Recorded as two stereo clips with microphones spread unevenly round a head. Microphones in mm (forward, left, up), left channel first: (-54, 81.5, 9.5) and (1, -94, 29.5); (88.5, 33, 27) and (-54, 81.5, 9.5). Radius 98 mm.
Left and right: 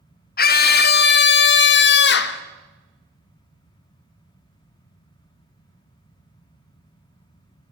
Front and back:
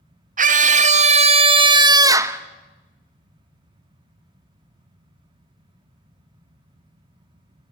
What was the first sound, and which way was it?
A scream, 140° left.